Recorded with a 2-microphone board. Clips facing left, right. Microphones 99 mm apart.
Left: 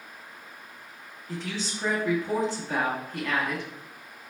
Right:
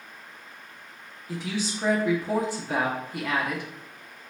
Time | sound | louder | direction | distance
1.3 | a woman speaking | right 3 dB | 10° right (ahead or behind) | 0.7 m